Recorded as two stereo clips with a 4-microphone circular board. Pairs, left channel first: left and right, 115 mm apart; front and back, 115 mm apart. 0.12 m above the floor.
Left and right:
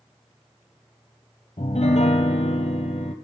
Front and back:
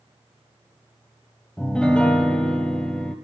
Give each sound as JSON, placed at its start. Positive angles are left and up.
{"t": 1.6, "sound": "a piano", "azimuth_deg": 80, "distance_m": 0.8}